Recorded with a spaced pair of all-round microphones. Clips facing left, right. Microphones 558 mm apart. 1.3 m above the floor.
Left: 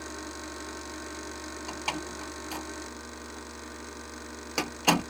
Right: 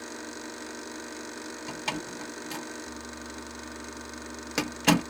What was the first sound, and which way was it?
A door slam, 45° right (ahead or behind).